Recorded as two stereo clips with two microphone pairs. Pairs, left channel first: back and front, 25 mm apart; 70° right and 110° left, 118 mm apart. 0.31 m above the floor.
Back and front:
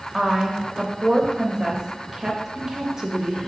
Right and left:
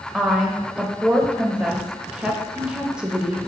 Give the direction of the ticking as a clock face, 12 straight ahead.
No ticking in this recording.